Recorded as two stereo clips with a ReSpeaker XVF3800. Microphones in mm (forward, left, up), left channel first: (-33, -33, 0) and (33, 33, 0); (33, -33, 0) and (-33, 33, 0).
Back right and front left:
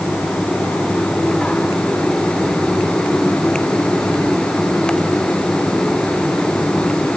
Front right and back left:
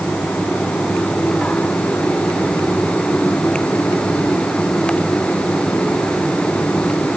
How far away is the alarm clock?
I don't hear an alarm clock.